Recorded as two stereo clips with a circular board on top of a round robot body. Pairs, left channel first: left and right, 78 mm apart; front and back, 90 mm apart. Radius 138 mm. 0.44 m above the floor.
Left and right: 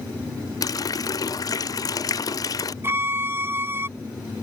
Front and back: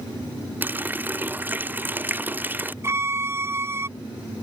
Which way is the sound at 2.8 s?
135° right.